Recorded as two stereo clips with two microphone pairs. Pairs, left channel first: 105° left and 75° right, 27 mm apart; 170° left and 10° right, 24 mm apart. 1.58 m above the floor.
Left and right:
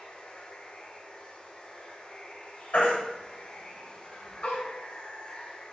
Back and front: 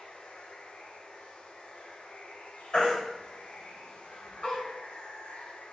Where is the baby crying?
115° left, 4.5 m.